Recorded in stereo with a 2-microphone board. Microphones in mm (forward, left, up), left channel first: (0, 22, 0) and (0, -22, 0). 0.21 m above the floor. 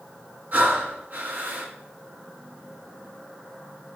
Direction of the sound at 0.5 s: 45° right (ahead or behind).